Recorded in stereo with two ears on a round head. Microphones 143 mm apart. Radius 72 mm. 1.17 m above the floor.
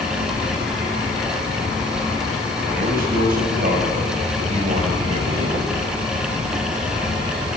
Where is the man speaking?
65° right (ahead or behind), 6.5 m; by 5.7 s 35° right (ahead or behind), 4.5 m.